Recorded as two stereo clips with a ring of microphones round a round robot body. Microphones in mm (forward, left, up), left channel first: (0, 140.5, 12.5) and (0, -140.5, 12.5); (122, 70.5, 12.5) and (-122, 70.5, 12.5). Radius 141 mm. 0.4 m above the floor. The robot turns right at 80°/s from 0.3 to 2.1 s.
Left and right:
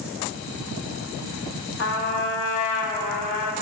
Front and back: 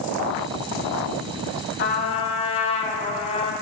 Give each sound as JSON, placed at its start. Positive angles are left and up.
{"t": 1.8, "sound": "a trumpet", "azimuth_deg": 40, "distance_m": 1.5}